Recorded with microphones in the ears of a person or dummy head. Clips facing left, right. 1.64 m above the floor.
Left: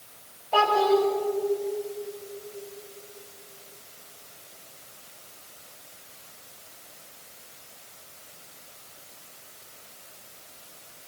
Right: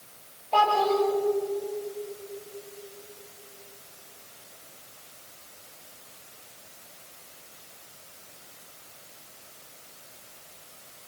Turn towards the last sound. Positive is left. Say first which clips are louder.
# left 2 dB
turn(degrees=10)  # may be behind; listen again after turning